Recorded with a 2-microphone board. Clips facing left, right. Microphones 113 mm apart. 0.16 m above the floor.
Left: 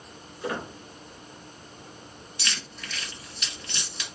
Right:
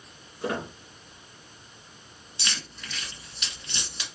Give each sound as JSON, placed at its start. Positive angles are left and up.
{"t": 0.4, "sound": "a squeak", "side_deg": -35, "distance_m": 1.9}
{"t": 2.4, "sound": "keys jangling", "side_deg": -25, "distance_m": 1.2}